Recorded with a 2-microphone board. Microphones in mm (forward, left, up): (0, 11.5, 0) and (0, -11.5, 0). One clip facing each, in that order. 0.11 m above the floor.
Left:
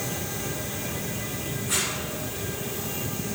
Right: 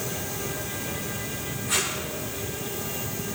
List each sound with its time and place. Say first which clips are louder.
1.7 s tape being pulled: right 1 dB; centre (ahead or behind), 6 m